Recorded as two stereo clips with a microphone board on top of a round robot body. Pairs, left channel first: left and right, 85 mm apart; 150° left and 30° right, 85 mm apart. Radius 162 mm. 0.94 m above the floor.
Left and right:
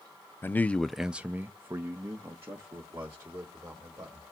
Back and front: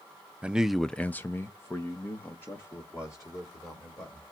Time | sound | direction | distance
0.4 | a man speaking | 40° left | 0.6 m